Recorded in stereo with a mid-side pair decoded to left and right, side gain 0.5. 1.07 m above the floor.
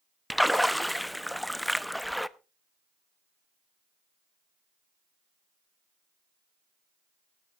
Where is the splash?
5° left, 0.7 m.